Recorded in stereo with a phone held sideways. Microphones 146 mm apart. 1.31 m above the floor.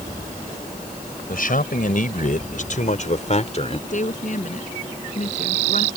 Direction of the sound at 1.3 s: 75° left (ahead or behind).